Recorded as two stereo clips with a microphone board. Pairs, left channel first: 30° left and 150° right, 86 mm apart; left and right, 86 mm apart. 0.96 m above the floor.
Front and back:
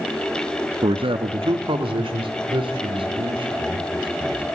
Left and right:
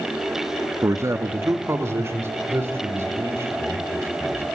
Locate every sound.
0.8 s a man speaking: 145° right, 0.9 m; by 4.5 s 150° right, 4.5 m